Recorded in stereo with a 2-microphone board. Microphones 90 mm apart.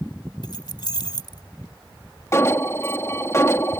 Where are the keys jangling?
55° left (ahead or behind).